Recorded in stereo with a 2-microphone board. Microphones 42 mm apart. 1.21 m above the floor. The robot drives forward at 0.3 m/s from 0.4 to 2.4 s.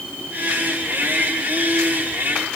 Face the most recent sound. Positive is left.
No sound to turn to.